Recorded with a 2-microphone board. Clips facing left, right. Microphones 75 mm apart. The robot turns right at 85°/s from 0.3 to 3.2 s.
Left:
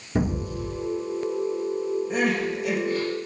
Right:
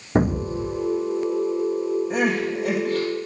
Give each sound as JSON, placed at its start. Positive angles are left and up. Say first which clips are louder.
{"t": 0.1, "sound": "an explosion", "louder": "right 5 dB", "azimuth_deg": -55, "distance_m": 0.6}
{"t": 2.1, "sound": "crying", "louder": "right 2 dB", "azimuth_deg": 180, "distance_m": 4.5}